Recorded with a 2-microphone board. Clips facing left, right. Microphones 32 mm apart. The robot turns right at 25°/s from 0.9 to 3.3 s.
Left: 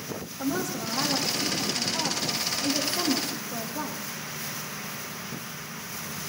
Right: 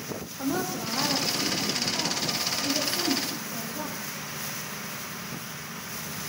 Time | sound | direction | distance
0.4 | a woman speaking | 15° right | 5.5 m